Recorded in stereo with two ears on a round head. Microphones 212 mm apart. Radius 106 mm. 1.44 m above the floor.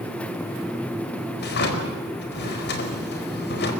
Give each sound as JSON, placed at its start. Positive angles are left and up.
{"t": 1.4, "sound": "a drawer", "side_deg": 50, "distance_m": 4.5}